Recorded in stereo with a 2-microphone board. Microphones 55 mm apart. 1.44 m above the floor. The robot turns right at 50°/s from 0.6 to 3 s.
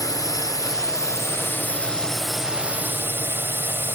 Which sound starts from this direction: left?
A drone, at 0.0 s.